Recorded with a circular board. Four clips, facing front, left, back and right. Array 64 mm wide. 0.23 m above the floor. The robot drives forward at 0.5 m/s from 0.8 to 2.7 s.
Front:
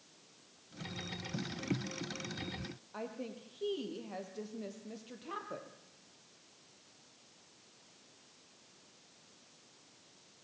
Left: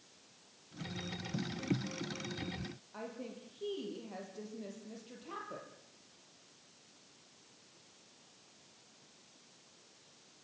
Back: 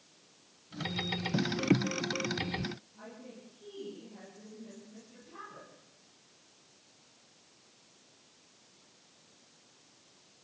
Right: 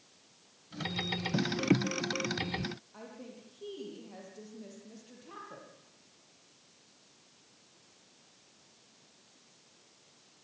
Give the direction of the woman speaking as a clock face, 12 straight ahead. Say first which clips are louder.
Left 3 dB, front 6 dB; 12 o'clock.